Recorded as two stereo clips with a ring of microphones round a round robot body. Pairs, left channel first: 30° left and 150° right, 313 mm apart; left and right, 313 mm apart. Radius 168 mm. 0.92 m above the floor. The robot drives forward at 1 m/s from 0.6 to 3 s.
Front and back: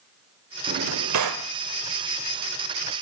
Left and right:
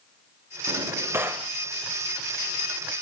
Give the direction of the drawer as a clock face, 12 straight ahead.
5 o'clock.